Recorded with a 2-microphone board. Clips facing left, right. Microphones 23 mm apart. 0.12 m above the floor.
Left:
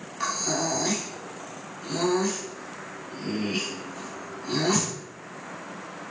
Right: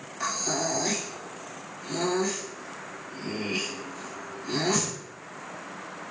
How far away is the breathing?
About 1.6 m.